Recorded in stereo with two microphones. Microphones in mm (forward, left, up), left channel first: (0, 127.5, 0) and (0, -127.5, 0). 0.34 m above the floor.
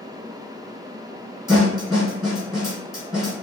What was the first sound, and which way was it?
A snare drum, centre (ahead or behind).